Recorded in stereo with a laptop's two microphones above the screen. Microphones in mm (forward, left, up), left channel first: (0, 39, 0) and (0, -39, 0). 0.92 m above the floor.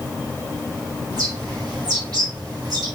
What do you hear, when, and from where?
1.1 s a bird: 60° right (ahead or behind), 5.5 m